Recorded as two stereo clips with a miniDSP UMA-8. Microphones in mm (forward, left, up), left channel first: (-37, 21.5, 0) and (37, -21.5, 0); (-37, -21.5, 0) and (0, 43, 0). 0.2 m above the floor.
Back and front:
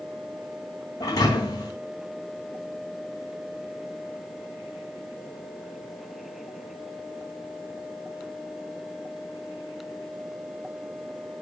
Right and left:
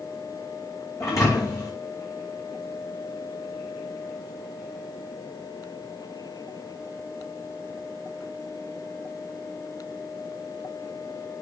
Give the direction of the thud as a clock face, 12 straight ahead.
6 o'clock.